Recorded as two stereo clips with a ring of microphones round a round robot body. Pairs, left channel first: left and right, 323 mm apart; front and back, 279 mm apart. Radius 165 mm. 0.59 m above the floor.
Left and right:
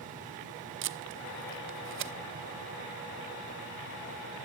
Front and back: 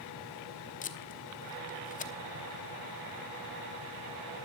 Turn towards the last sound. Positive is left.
turn(degrees=-55)